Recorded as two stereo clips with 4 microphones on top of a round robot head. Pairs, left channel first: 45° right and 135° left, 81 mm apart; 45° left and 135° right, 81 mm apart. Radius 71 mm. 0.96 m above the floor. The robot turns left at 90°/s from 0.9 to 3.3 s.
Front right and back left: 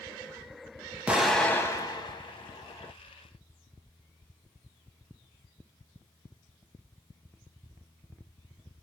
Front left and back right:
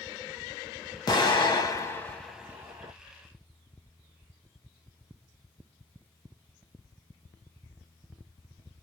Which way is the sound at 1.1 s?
65° left.